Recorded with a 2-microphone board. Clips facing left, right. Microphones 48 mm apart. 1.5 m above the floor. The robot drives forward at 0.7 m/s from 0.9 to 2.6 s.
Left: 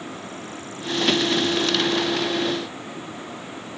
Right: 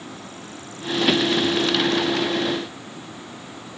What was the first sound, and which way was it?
Only background noise.